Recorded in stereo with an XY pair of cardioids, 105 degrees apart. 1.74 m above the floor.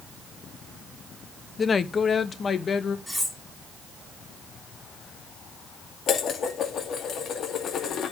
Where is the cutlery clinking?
5° left, 3 m.